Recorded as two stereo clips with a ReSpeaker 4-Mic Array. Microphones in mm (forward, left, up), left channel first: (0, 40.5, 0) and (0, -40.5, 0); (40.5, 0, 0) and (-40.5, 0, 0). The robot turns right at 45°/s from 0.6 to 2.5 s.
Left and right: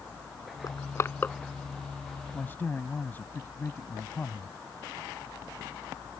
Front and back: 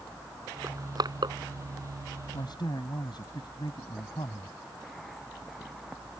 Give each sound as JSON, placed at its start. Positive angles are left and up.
{"t": 0.6, "sound": "crushing", "azimuth_deg": 130}
{"t": 2.3, "sound": "a man speaking", "azimuth_deg": 15}